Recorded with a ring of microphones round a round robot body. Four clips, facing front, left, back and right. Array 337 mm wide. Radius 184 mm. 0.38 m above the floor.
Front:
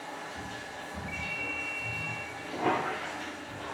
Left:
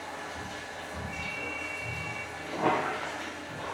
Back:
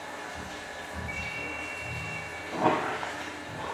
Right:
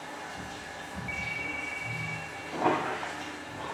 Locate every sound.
0.0 s running water: 125° left, 0.9 m
1.1 s a ringtone: 60° right, 0.6 m
2.5 s a squeak: 170° left, 1.0 m